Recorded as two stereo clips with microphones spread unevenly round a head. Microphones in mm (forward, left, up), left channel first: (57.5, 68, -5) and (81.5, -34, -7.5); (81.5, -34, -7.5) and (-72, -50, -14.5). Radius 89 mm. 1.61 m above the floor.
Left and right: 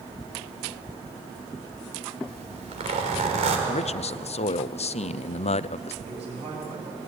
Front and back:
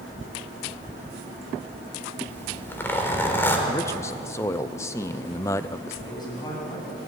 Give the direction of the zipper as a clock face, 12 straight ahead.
2 o'clock.